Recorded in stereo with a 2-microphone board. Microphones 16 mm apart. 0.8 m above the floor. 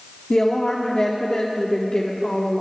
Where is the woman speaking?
45° left (ahead or behind), 2 m.